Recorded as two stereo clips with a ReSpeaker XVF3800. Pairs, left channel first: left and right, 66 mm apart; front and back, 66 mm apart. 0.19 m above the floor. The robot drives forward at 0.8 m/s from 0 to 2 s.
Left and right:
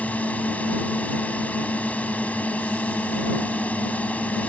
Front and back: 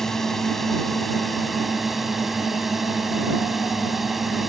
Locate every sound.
0.0 s a drone: 75° left; by 4.5 s 95° left